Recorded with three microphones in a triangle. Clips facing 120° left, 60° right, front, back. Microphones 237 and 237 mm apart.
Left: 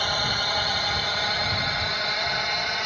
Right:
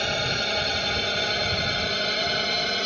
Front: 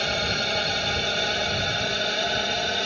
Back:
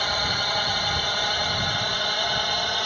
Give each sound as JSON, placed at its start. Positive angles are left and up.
{"t": 0.0, "sound": "a drone", "azimuth_deg": -30}